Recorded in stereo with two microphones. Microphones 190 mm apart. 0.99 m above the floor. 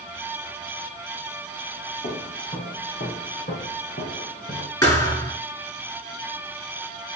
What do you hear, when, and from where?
2.0 s footsteps: 75° left (ahead or behind), 3.5 m; by 4.7 s 45° left (ahead or behind), 4 m
4.8 s a thud: 20° left (ahead or behind), 6.5 m